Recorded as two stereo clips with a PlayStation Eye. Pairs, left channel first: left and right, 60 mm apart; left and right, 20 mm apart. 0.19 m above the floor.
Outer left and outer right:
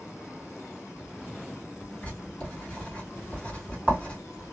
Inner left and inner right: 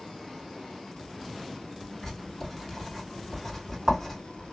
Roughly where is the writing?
Centre.